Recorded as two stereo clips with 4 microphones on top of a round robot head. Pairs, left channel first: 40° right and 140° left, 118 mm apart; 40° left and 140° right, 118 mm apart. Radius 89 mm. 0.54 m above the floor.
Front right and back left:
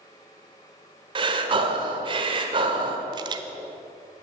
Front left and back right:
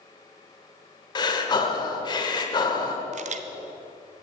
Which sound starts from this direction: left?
Breathing, at 1.1 s.